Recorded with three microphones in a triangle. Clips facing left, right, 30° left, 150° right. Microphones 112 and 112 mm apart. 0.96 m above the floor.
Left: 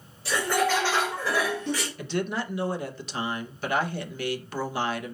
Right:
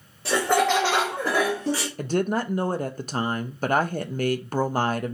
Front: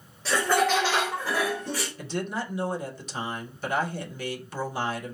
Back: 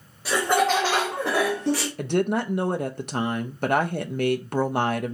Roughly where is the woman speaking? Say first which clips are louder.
Right 5 dB, back 8 dB; behind right.